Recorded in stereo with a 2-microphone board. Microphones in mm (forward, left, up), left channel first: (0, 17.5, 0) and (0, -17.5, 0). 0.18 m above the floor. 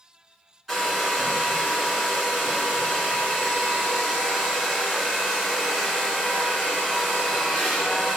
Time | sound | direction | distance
0.7 | a hair dryer | 10° right (ahead or behind) | 2.5 m